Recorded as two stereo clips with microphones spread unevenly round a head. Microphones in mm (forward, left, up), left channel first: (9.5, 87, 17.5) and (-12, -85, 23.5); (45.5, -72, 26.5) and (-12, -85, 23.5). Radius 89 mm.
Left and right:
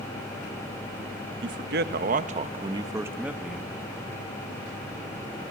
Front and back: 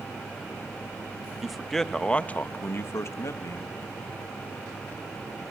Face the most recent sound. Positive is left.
turn(degrees=-5)